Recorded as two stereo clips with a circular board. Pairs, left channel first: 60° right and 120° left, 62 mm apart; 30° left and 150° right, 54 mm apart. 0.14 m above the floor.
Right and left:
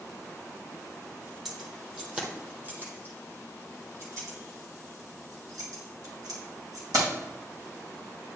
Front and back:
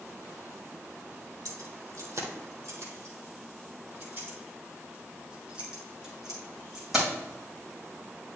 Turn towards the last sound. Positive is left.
turn(degrees=125)